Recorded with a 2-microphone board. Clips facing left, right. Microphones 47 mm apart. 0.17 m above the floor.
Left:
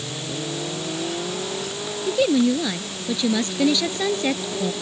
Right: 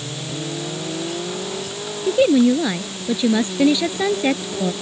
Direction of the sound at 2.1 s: 15° right (ahead or behind).